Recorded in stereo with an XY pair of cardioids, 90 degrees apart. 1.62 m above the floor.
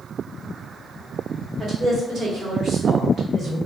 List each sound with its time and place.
1.6 s a woman speaking: 55° right, 1.5 m